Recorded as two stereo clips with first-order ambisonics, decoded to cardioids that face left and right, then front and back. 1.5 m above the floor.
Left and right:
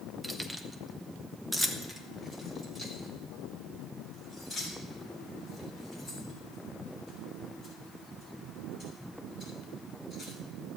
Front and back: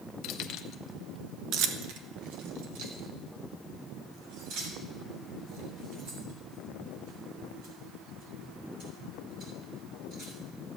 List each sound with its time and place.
0.2 s keys jangling: 5° right, 1.0 m; by 10.4 s straight behind, 10.5 m